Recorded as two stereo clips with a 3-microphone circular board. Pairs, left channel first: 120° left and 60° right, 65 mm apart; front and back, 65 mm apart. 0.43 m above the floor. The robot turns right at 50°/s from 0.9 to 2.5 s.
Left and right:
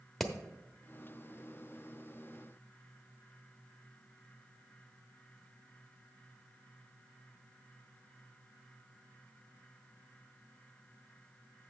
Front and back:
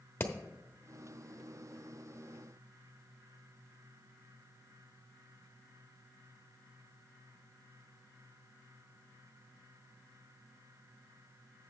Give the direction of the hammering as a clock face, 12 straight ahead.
11 o'clock.